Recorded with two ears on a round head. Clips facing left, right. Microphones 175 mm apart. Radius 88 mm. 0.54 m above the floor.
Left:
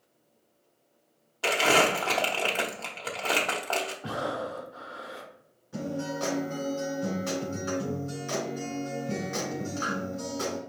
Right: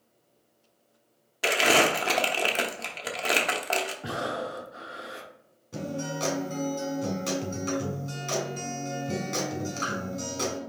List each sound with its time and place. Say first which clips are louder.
1.4 s crumpling: right 1 dB; 20° right (ahead or behind), 0.8 m
4.0 s breathing: even; 25° right (ahead or behind), 0.6 m
5.7 s a guitar: left 1 dB; 45° right (ahead or behind), 2.5 m